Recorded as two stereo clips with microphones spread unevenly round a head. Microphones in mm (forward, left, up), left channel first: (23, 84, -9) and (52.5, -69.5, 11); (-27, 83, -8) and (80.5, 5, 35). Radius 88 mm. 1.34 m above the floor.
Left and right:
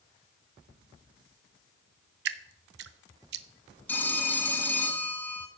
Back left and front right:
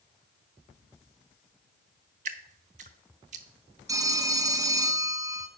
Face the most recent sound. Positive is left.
turn(degrees=20)